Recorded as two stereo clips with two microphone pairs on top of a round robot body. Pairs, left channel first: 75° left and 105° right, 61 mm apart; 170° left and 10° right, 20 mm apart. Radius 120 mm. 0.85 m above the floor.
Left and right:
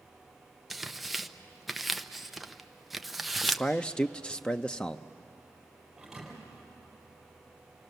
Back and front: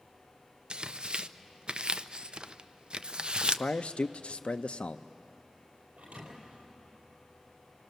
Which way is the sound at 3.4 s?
155° left.